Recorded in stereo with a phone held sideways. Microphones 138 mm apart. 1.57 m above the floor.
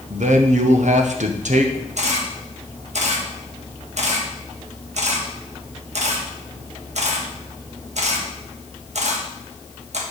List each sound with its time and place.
0.1 s a man speaking: 70° right (ahead or behind), 1.0 m
2.0 s a camera shutter: 60° right (ahead or behind), 1.3 m